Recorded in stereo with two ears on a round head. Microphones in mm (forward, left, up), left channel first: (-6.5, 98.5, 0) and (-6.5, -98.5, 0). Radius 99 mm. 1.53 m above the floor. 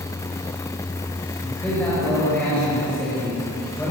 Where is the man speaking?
10° left (ahead or behind), 7 m.